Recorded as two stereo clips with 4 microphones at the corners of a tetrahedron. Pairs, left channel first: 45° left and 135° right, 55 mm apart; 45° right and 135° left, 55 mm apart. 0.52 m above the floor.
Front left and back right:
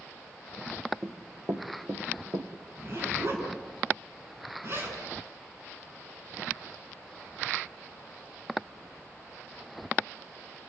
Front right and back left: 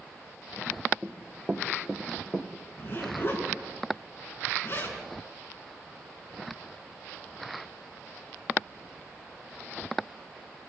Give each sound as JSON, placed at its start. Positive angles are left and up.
{"t": 1.0, "sound": "running footsteps", "azimuth_deg": -165, "distance_m": 2.0}
{"t": 2.8, "sound": "a zipper", "azimuth_deg": -90, "distance_m": 5.5}